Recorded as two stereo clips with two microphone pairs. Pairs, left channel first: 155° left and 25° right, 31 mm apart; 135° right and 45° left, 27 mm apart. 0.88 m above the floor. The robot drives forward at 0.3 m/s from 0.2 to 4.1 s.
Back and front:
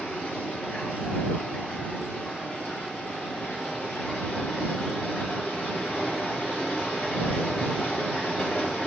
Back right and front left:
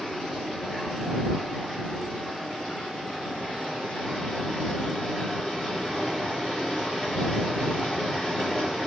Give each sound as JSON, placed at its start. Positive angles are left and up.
{"t": 0.0, "sound": "running water", "azimuth_deg": 150, "distance_m": 4.0}